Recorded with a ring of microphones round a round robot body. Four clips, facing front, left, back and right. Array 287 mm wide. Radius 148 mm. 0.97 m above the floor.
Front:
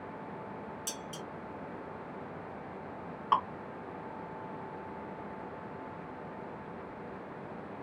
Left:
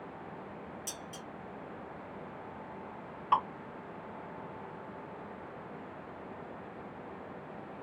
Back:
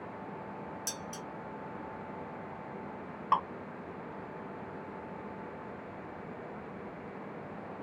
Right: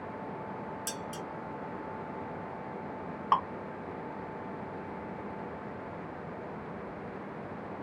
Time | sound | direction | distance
0.9 | dishes clattering | 105° right | 0.7 m
3.3 | dripping | 95° right | 1.5 m